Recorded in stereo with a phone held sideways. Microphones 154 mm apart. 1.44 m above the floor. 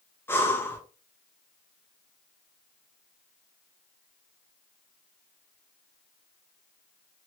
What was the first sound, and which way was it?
Breathing, 15° left (ahead or behind).